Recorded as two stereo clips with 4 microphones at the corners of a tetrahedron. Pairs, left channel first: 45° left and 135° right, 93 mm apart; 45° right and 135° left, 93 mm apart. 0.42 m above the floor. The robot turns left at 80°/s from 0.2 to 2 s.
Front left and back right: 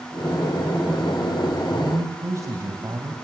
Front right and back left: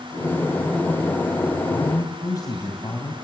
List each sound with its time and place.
1.7 s a man speaking: 60° right, 2 m; by 3.1 s 85° right, 2 m